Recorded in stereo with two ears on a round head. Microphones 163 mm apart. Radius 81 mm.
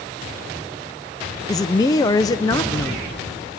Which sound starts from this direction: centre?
A man speaking, at 1.5 s.